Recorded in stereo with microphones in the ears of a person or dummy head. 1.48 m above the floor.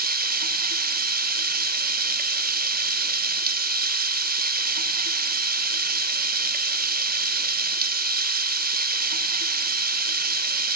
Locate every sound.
0.0 s running water: 55° right (ahead or behind), 1.0 m